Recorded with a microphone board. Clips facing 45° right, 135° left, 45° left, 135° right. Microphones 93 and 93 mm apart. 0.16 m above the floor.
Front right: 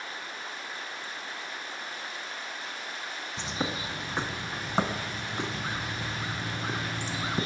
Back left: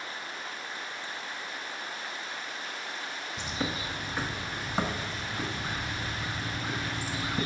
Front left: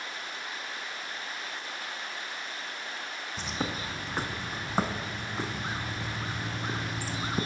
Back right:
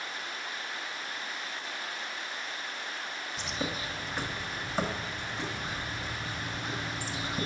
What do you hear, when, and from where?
3.4 s a bird: 10° left, 0.5 m